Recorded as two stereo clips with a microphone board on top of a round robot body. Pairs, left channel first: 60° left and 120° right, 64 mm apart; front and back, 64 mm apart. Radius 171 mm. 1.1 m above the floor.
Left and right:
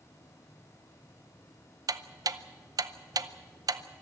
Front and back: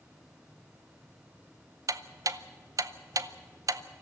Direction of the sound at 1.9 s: 145° right.